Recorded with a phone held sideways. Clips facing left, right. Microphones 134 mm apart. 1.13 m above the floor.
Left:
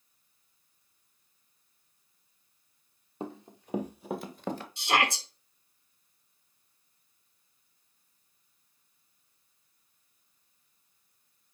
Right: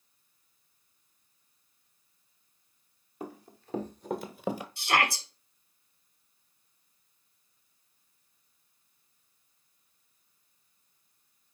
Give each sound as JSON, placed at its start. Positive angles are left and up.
{"t": 3.2, "sound": "running footsteps", "side_deg": 25, "distance_m": 1.6}
{"t": 4.8, "sound": "a shout", "side_deg": 20, "distance_m": 2.0}